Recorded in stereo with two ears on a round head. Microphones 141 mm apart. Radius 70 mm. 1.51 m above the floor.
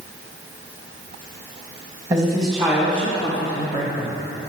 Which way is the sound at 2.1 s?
20° right (ahead or behind).